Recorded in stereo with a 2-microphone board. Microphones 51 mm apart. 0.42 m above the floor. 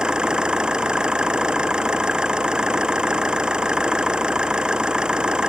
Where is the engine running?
15° right (ahead or behind).